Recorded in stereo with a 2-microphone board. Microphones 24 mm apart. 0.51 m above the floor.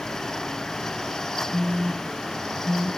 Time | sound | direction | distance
1.5 | a phone buzzing | 65° right (ahead or behind) | 1.7 m